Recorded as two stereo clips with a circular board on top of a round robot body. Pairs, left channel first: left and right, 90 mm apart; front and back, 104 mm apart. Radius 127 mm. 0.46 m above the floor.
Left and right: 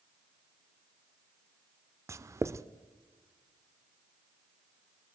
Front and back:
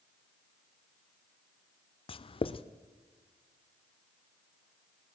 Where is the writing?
30° right, 0.7 m.